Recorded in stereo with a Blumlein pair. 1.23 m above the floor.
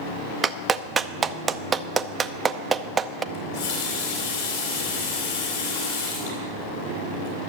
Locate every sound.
0.4 s a clap: 15° right, 0.5 m
3.3 s a running tap: 60° left, 3.5 m